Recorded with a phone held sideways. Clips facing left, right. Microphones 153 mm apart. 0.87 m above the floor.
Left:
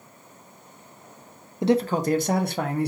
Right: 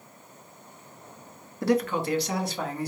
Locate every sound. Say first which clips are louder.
1.6 s a man speaking: left 3 dB; 20° left (ahead or behind), 0.5 m; by 2.9 s 65° left (ahead or behind), 0.9 m